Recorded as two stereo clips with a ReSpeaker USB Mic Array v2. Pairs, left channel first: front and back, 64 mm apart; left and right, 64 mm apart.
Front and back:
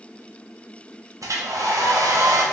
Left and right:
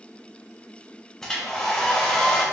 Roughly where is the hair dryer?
Behind.